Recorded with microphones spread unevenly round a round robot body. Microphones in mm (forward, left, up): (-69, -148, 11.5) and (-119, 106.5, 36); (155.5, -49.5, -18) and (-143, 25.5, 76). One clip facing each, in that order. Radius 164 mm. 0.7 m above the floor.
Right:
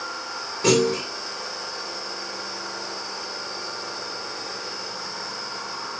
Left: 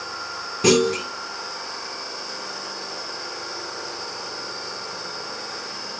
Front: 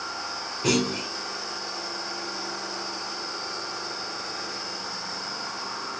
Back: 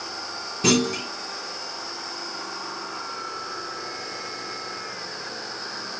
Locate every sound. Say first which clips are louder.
0.6 s a clunk: left 2 dB, back 3 dB; 145° left, 3 m